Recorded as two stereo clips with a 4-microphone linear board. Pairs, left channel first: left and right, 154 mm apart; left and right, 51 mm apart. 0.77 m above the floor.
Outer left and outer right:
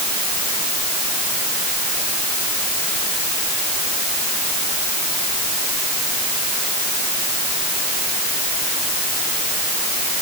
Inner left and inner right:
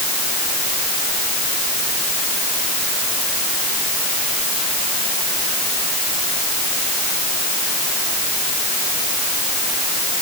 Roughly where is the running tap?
No running tap in this recording.